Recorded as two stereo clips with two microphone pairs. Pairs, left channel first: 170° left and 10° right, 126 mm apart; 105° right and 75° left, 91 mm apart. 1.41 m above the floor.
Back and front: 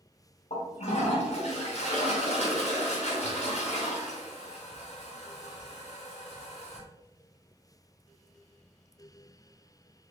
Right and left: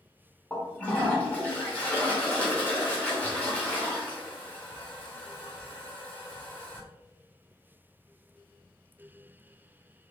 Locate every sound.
0.5 s a toilet flushing: 175° right, 2 m